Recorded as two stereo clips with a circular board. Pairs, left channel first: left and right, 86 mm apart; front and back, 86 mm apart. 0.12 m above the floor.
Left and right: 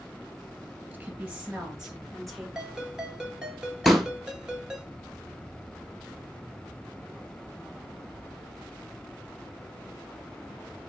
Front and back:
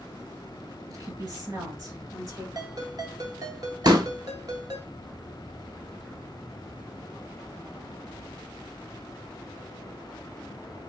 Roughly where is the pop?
Behind.